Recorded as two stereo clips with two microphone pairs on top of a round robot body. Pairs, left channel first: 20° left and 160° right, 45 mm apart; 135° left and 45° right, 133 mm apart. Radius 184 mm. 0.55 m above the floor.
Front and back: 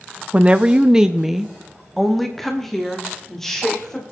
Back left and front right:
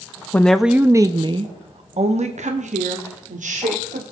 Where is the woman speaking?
165° right, 0.7 m; by 4.0 s 60° right, 2.5 m.